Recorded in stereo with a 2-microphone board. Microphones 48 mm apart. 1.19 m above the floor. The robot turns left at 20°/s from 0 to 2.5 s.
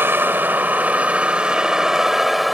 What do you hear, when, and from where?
0.0 s a vehicle: 130° right; by 2.5 s straight behind